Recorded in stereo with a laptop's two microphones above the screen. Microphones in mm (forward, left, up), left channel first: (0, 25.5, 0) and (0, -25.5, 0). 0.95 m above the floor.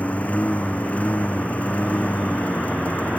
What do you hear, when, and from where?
0.0 s a lawn mower: 30° left (ahead or behind)